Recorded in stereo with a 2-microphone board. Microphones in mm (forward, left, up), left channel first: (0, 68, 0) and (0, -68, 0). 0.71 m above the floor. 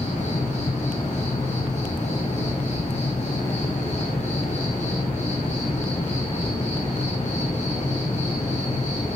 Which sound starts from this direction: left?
An insect, at 0.0 s.